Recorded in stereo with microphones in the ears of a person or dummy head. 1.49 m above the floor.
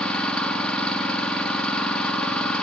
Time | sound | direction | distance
0.0 | an engine running | 5° left (ahead or behind) | 1.6 m